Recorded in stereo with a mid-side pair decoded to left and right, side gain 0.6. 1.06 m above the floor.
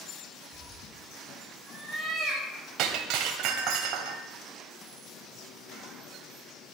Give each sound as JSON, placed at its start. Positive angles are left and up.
{"t": 0.5, "sound": "a cat meowing", "azimuth_deg": -30, "distance_m": 7.5}
{"t": 2.8, "sound": "breaking glass", "azimuth_deg": -65, "distance_m": 2.0}